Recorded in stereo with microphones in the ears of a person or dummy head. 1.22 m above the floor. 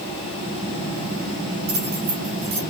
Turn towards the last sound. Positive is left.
turn(degrees=-75)  # may be behind; listen again after turning